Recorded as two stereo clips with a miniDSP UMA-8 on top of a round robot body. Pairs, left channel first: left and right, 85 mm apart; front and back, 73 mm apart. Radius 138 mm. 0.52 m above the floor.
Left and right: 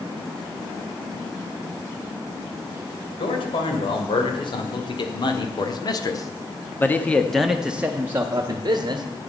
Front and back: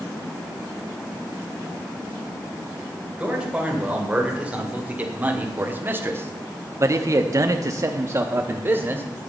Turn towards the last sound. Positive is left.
turn(degrees=-125)